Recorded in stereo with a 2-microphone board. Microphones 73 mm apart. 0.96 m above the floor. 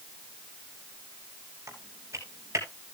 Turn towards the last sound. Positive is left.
turn(degrees=-45)  # may be behind; listen again after turning